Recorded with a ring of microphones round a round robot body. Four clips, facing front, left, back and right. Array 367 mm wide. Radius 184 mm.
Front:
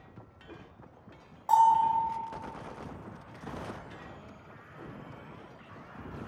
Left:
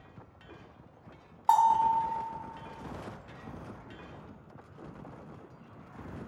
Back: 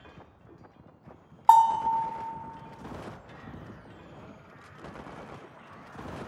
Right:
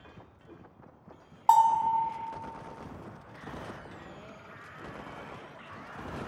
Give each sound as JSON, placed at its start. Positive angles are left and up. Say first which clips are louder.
{"t": 1.5, "sound": "a bell", "louder": "right 1 dB, back 3 dB", "azimuth_deg": -170, "distance_m": 0.9}